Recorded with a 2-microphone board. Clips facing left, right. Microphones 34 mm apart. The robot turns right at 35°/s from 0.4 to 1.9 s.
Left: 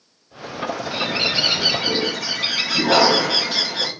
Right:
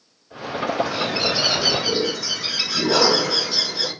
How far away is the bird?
About 5.5 m.